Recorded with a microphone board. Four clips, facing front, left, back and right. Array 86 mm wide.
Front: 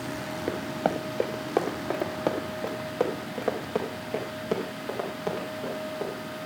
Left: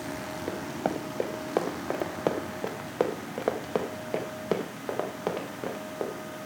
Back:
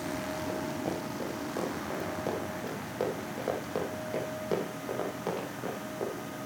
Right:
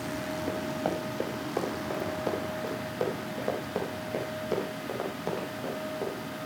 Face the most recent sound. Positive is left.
turn(degrees=85)